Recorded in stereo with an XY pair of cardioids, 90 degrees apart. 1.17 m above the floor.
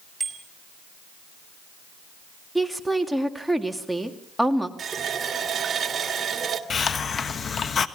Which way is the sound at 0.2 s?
25° right.